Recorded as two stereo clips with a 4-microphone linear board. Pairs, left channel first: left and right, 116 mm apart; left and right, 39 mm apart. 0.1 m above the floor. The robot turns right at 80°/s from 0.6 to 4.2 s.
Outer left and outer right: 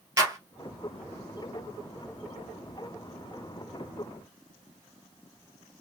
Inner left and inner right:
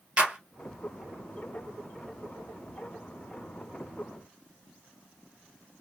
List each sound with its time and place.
0.2 s a clap: 30° right (ahead or behind), 1.9 m